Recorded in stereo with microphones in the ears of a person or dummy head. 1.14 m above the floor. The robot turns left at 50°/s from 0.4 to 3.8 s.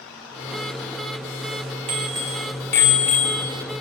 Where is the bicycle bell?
150° right, 2.5 m; by 3.5 s 130° left, 2.5 m.